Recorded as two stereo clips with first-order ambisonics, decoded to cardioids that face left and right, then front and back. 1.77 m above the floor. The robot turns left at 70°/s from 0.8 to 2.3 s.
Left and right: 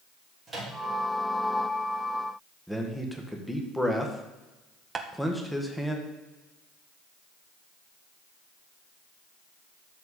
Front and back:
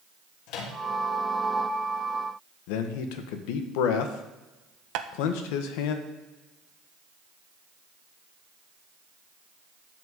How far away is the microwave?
About 3 m.